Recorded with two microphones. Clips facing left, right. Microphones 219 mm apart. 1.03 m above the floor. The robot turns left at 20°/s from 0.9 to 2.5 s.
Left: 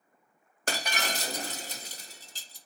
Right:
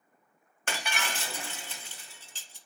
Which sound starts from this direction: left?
Breaking glass, at 0.7 s.